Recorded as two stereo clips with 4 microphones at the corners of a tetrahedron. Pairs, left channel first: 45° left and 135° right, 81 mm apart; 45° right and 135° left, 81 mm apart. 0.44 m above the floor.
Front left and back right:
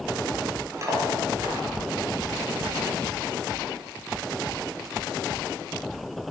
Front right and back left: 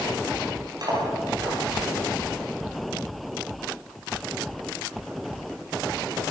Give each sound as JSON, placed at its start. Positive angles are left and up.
{"t": 0.8, "sound": "cutlery clinking", "azimuth_deg": 175, "distance_m": 7.0}